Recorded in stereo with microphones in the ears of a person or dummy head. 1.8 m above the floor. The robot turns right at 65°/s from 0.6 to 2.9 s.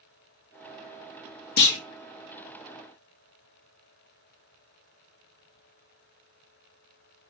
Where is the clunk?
60° left (ahead or behind), 0.6 m; by 1.8 s 70° left (ahead or behind), 0.6 m.